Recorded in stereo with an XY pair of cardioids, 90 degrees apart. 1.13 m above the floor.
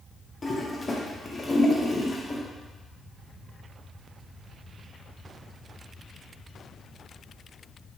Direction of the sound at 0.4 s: 25° left.